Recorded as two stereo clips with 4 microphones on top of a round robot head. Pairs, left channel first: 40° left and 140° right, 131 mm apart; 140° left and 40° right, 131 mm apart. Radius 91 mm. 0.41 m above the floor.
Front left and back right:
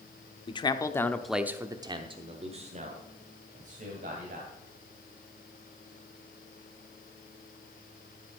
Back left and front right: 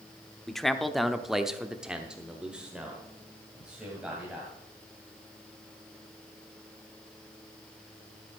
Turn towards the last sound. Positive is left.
turn(degrees=-125)